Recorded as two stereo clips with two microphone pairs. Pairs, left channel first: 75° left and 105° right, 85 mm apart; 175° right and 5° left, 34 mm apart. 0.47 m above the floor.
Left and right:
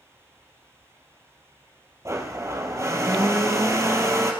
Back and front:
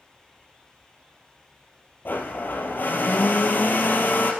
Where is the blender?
160° right, 1.9 m.